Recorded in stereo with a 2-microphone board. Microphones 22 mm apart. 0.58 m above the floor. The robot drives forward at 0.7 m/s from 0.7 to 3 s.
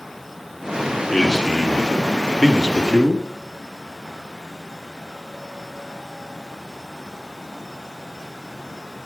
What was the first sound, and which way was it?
A man speaking, 20° left (ahead or behind).